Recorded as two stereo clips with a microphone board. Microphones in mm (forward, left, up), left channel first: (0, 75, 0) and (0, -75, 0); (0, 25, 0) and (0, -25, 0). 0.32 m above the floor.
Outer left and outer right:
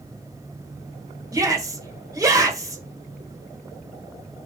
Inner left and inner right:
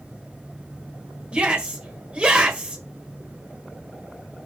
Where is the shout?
25° right (ahead or behind), 1.6 m.